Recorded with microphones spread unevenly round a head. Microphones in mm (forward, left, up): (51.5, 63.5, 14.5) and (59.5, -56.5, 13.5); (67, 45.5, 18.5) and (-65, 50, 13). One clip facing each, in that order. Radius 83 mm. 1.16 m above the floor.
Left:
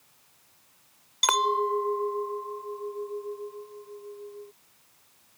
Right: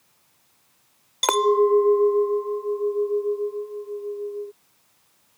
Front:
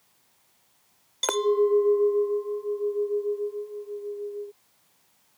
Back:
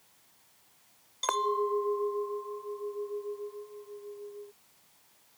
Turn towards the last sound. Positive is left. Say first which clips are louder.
# right 8 dB, front 8 dB
turn(degrees=-50)